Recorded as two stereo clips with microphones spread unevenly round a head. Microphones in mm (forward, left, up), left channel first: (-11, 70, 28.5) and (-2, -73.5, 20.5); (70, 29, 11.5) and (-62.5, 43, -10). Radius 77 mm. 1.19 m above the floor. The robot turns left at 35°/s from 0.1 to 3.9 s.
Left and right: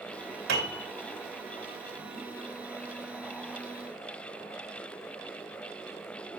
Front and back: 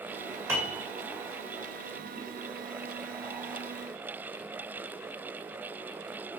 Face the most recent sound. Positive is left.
turn(degrees=135)